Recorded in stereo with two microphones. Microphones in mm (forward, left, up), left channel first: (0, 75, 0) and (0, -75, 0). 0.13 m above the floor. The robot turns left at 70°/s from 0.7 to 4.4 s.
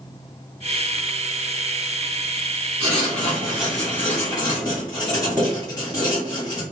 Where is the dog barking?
I don't hear a dog barking.